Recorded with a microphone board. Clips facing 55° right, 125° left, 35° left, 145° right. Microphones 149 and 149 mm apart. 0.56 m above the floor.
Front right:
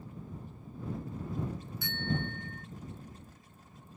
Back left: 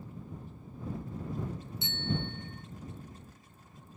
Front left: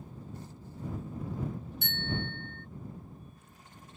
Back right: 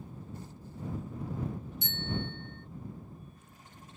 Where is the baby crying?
I don't hear a baby crying.